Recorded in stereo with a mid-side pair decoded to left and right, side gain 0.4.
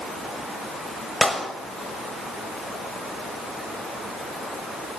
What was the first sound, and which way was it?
A clap, straight ahead.